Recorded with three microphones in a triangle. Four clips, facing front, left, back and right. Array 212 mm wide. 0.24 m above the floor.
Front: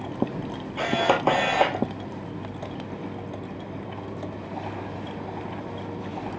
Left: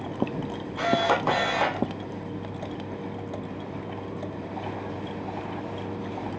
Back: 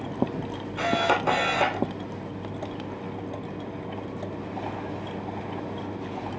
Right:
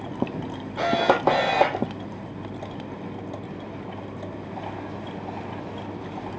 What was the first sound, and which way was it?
A camera shutter, 70° right.